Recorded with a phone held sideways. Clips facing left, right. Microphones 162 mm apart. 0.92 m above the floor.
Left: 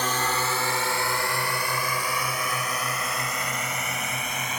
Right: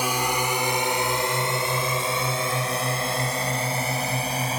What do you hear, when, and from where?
0.0 s a drone: 10° right (ahead or behind); by 4.6 s 35° right (ahead or behind)